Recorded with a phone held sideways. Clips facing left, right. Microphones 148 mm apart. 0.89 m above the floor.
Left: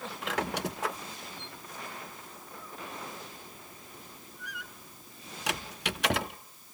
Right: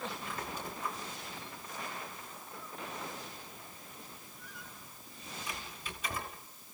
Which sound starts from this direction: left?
A squeak, at 0.2 s.